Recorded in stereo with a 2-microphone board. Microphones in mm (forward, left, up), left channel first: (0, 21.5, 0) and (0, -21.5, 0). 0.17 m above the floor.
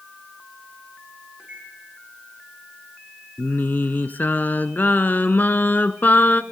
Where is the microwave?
30° right (ahead or behind), 8.5 m.